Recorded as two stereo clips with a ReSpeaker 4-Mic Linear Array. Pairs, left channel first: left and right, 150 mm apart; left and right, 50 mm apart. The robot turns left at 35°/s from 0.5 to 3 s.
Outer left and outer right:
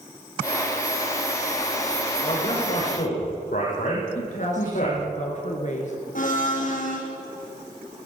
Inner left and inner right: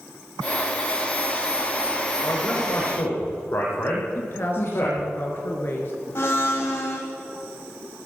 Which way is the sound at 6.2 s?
60° left (ahead or behind).